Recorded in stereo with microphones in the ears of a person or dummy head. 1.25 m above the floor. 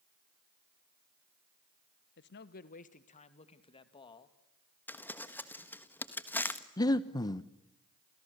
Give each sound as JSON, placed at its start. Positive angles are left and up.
{"t": 2.2, "sound": "a man speaking", "side_deg": 60, "distance_m": 1.2}
{"t": 4.9, "sound": "crumpling", "side_deg": 10, "distance_m": 1.4}
{"t": 6.8, "sound": "breathing", "side_deg": 20, "distance_m": 0.9}